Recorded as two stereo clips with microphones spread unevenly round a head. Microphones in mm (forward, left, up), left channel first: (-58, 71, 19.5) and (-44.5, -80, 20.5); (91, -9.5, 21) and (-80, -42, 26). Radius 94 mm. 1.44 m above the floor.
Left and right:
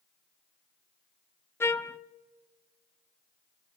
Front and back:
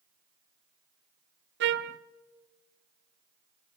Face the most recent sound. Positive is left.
turn(degrees=170)